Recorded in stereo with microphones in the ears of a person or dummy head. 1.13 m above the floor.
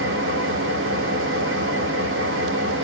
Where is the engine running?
60° right (ahead or behind), 0.8 m.